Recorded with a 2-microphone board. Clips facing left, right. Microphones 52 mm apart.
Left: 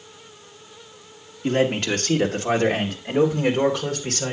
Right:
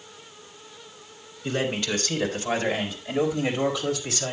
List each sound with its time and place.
1.4 s a man speaking: 55° left (ahead or behind), 1.9 m; by 4.3 s 60° left (ahead or behind), 3 m